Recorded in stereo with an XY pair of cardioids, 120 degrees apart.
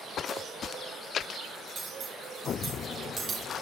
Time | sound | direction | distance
1.8 | cutlery clinking | 45° right | 5 m